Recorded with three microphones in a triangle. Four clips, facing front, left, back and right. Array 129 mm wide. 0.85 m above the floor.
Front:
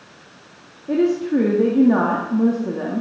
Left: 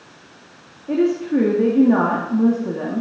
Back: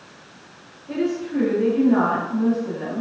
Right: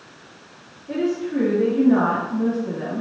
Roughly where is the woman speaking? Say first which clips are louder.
Left 5 dB, front 6 dB; ahead left.